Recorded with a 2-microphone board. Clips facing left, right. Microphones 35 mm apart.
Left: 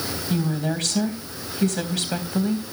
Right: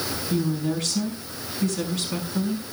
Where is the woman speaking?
70° left (ahead or behind), 3 m.